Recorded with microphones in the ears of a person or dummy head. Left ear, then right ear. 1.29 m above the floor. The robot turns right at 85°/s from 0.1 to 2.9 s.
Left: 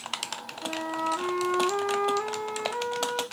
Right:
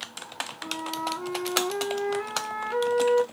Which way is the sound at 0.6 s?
25° left.